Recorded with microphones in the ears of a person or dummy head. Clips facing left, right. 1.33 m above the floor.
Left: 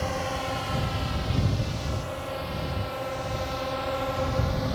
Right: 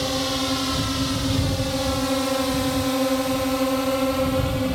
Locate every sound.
0.0 s a drone: 50° right (ahead or behind); by 4.8 s 40° right (ahead or behind)